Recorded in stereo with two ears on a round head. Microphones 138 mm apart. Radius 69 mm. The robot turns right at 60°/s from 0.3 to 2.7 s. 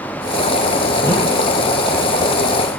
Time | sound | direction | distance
1.0 | a whoosh | 20° left (ahead or behind) | 1.6 m